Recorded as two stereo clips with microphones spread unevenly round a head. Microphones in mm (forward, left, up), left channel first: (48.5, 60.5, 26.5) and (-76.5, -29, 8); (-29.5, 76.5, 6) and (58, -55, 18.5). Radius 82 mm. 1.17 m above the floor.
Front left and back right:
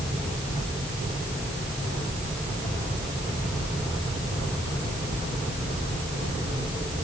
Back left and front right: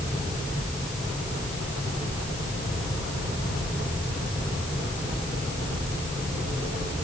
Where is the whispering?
I don't hear whispering.